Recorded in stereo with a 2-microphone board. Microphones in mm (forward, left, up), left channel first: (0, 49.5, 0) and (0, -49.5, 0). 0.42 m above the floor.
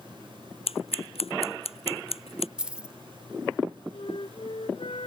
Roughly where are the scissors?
Left.